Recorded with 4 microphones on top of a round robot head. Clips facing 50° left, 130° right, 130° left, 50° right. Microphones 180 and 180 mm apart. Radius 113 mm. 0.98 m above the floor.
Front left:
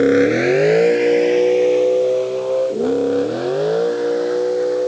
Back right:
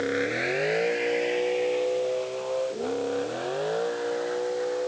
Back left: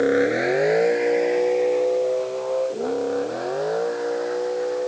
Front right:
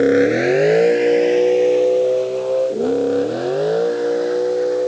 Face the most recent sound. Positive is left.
turn(degrees=5)